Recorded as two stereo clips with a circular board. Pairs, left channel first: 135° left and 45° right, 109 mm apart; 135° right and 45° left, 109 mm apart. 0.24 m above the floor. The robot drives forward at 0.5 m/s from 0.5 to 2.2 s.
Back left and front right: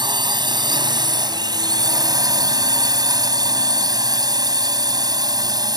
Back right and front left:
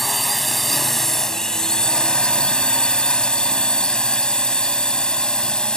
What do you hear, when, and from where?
0.0 s a drone: 45° right; by 5.8 s 55° right